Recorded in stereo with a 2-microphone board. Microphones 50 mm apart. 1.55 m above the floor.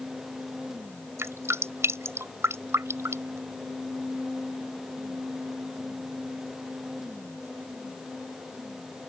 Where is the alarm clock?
I don't hear an alarm clock.